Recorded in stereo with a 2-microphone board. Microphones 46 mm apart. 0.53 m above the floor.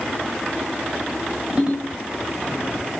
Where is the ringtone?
25° right (ahead or behind), 2.5 m.